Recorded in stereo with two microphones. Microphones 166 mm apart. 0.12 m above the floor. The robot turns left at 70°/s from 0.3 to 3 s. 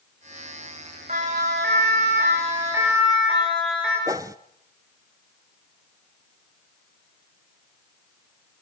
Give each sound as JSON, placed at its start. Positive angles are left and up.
{"t": 1.1, "sound": "a siren", "side_deg": -45, "distance_m": 9.5}
{"t": 4.1, "sound": "a whoosh", "side_deg": -20, "distance_m": 0.6}